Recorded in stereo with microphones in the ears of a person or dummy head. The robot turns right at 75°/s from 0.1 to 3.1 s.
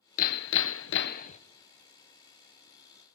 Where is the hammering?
50° left, 0.5 m; by 1.4 s 140° left, 0.5 m.